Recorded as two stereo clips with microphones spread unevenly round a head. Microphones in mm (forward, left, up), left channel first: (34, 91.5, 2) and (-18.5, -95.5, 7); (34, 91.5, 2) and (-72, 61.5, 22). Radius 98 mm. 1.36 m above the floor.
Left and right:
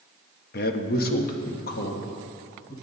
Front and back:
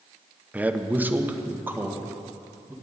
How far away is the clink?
No clink in this recording.